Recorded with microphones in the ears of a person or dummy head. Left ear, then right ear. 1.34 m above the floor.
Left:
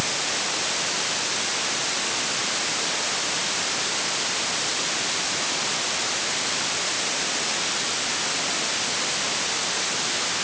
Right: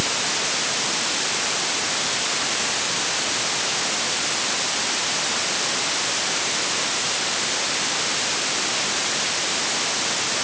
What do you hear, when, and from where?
Only background noise.